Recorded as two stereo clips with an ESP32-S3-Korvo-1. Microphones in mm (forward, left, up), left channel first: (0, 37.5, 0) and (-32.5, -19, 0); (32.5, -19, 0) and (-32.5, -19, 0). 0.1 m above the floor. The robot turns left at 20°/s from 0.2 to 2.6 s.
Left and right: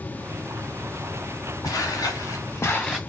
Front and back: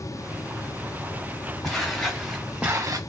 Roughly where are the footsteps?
Left.